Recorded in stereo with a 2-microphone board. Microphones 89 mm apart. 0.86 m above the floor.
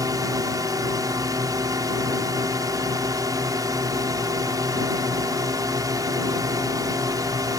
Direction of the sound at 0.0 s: 40° right (ahead or behind).